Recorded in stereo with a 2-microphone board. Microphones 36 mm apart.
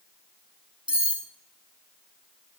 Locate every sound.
0.9 s cutlery clinking: 35° right (ahead or behind), 1.7 m